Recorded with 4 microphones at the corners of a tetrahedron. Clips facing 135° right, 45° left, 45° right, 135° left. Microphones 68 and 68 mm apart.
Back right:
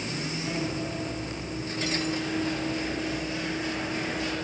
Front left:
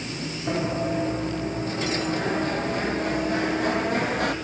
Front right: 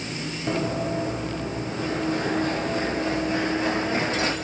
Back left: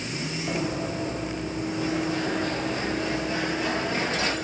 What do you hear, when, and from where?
0.5 s running footsteps: 15° right, 5.5 m; by 4.3 s 10° left, 6.5 m